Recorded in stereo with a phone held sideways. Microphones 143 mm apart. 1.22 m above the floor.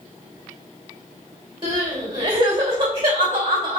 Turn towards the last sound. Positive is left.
turn(degrees=-40)  # may be behind; listen again after turning